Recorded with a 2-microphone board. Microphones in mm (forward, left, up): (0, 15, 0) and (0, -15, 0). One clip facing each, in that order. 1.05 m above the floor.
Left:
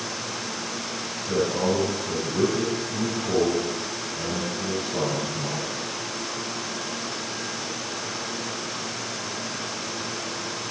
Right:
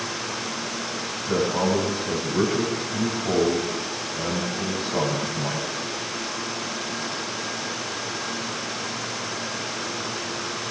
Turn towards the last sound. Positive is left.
turn(degrees=-30)  # may be behind; listen again after turning